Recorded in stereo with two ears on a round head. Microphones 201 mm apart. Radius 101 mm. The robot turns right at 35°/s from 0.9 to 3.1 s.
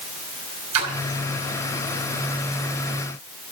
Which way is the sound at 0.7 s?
85° right.